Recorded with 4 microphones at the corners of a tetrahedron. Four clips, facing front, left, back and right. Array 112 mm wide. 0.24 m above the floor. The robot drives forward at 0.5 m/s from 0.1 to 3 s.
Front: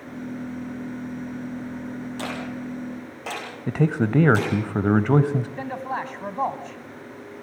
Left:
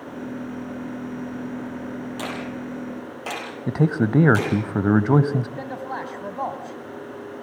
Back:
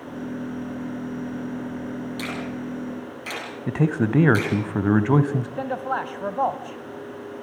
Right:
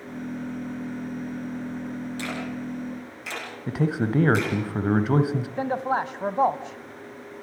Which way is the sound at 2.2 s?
50° left.